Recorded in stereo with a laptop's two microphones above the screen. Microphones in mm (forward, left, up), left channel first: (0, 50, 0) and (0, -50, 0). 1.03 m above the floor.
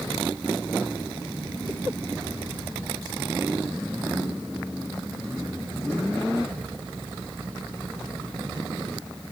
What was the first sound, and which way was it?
Only background noise.